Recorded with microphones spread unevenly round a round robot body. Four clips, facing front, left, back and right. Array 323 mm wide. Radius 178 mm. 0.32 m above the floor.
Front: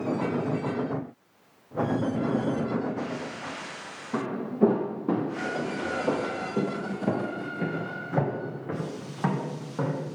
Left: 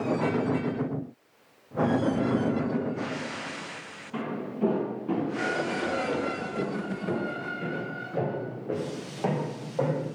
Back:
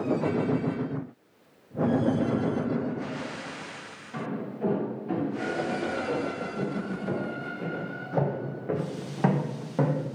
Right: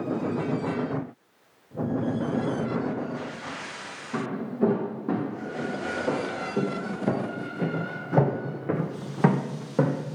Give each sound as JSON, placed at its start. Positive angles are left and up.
{"t": 4.1, "sound": "footsteps", "azimuth_deg": -20, "distance_m": 3.0}